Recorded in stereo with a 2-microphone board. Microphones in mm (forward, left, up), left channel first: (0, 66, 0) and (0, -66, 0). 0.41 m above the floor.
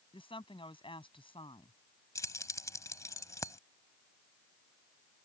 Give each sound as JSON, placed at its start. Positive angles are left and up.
{"t": 0.1, "sound": "a woman speaking", "side_deg": 45}
{"t": 2.1, "sound": "keys jangling", "side_deg": 25}